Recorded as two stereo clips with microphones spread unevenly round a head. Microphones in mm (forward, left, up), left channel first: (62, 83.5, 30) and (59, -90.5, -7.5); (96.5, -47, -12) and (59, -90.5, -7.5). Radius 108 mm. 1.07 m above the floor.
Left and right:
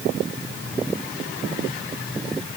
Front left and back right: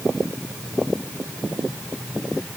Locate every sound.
Only background noise.